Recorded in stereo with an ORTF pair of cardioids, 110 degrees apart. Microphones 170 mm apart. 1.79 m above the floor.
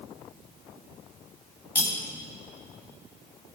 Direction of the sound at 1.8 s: 15° left.